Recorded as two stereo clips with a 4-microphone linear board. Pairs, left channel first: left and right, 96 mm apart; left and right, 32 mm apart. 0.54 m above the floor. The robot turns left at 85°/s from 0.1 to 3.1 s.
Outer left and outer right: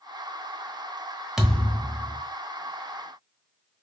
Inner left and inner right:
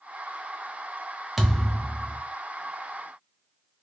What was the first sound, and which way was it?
A thud, 175° right.